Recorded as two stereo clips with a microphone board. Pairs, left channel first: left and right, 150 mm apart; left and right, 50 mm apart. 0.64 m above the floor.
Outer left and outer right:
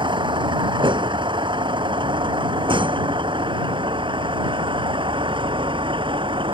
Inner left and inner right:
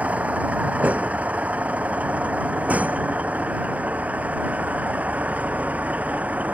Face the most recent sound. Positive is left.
turn(degrees=-35)  # may be behind; listen again after turning